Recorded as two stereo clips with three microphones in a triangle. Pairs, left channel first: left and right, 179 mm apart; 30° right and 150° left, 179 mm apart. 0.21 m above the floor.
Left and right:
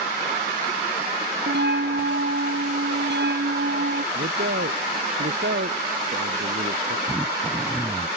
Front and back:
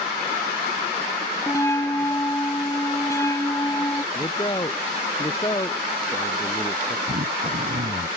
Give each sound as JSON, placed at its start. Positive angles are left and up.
{"t": 1.5, "sound": "a bell", "azimuth_deg": -105}
{"t": 4.1, "sound": "a man speaking", "azimuth_deg": -95}
{"t": 7.1, "sound": "throat clearing", "azimuth_deg": -175}